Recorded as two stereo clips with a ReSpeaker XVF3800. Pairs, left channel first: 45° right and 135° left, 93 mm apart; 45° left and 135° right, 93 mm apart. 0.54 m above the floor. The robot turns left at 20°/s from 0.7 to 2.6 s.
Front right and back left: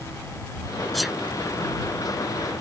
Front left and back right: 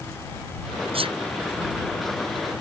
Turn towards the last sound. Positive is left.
turn(degrees=-165)